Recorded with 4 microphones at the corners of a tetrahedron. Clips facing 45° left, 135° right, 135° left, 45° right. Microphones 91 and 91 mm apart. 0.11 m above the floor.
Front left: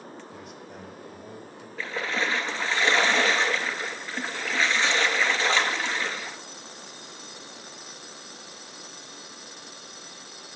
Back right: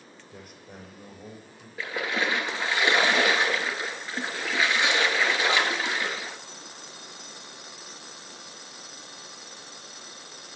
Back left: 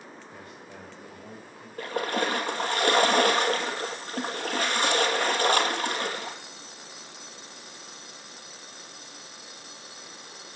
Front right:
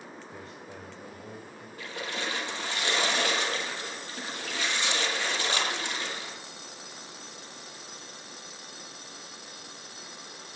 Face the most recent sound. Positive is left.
turn(degrees=150)